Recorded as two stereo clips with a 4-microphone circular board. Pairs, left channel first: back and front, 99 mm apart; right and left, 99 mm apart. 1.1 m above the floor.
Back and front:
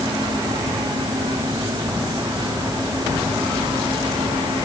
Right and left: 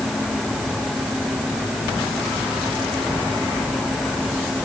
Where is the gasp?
I don't hear a gasp.